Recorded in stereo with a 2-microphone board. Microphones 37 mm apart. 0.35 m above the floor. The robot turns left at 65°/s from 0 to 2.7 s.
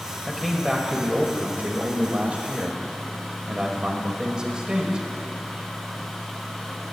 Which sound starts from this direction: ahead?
A man speaking, at 0.3 s.